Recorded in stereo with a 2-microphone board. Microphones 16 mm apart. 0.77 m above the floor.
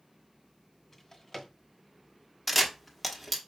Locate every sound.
0.9 s a drawer: 30° left (ahead or behind), 0.9 m
2.5 s a camera shutter: 5° left (ahead or behind), 1.0 m